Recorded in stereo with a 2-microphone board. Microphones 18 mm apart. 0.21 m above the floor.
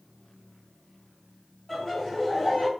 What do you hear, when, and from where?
1.7 s laughter: 25° left (ahead or behind), 1.8 m